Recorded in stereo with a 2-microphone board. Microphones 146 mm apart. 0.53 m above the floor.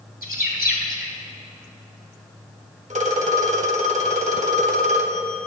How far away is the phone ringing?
About 1.1 m.